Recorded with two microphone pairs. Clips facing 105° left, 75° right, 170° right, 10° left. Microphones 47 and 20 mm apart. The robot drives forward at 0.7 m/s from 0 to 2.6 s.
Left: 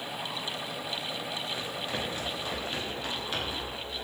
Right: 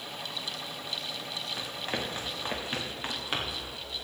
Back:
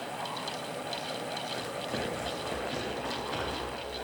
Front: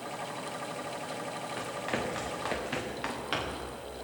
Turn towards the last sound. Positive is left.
turn(degrees=-15)